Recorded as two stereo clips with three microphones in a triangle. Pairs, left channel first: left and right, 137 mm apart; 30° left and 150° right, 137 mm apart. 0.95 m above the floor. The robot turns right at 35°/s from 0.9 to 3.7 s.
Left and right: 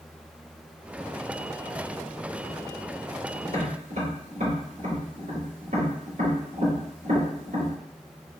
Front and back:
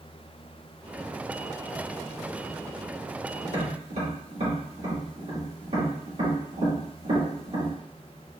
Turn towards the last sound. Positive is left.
turn(degrees=-115)